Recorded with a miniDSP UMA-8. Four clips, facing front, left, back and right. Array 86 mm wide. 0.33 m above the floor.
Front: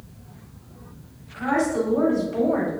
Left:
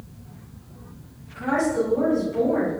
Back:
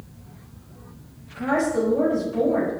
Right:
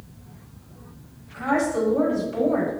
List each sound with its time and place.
1.3 s a woman speaking: 60° right, 1.9 m; by 2.7 s 50° right, 1.4 m